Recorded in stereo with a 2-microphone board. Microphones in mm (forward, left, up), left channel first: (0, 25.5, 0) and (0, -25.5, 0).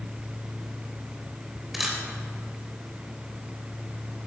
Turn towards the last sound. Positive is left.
turn(degrees=-5)  # may be behind; listen again after turning